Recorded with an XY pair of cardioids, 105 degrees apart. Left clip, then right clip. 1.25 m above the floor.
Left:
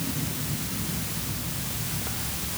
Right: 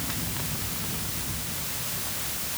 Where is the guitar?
No guitar in this recording.